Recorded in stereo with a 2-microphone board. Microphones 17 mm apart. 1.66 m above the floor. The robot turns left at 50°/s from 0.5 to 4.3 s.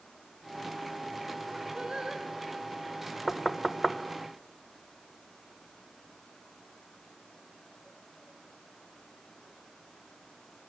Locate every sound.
1.8 s singing: 45° right (ahead or behind), 4.5 m; by 2.2 s 70° right (ahead or behind), 4.5 m
3.3 s knocking: 25° left (ahead or behind), 1.1 m; by 4.0 s 10° right (ahead or behind), 1.1 m